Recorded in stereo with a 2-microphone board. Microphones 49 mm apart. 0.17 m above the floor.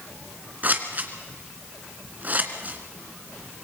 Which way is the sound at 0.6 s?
35° right (ahead or behind).